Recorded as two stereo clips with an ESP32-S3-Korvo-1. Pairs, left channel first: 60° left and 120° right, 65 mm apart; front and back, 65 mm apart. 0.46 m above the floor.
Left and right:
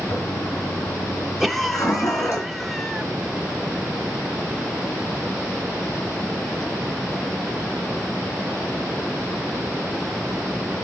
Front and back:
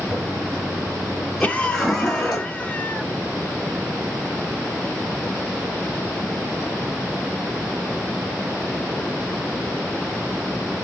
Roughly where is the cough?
Ahead right.